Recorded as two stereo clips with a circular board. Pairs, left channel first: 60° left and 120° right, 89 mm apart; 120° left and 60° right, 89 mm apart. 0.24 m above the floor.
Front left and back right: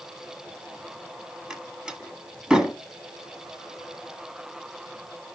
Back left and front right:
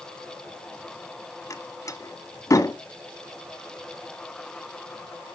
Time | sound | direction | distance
1.5 | a door slam | 160° left | 1.4 m